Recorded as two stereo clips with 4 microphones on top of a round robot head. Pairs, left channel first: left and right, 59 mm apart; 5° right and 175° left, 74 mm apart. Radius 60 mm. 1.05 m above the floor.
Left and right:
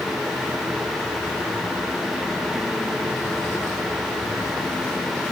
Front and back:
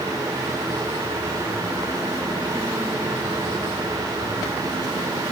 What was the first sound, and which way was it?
Only background noise.